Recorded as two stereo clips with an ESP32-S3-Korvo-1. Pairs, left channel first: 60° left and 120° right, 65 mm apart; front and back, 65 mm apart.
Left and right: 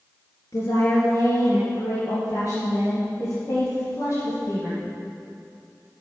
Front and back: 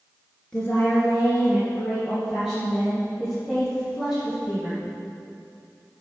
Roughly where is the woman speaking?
Left.